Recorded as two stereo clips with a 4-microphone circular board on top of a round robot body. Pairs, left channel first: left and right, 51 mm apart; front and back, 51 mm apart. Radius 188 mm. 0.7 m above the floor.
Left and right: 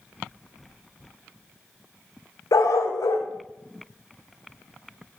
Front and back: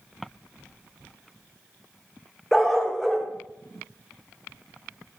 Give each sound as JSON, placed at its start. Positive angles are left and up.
{"t": 2.5, "sound": "a dog barking", "azimuth_deg": 85, "distance_m": 0.7}